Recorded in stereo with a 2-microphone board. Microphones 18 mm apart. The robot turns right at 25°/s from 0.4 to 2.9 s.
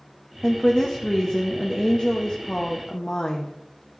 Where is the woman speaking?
15° left, 0.6 m; by 3.5 s 75° left, 0.6 m.